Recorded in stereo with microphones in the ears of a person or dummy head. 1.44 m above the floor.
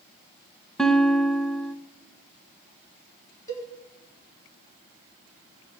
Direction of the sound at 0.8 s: Centre (ahead or behind).